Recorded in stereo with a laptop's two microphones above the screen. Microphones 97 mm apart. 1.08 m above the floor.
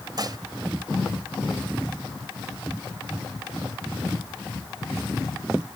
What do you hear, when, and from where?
0.2 s dishes clattering: 45° right (ahead or behind)